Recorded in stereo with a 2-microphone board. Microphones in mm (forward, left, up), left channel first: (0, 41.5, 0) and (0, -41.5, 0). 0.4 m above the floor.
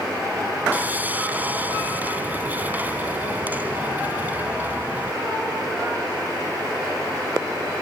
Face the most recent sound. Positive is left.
turn(degrees=-20)  # may be behind; listen again after turning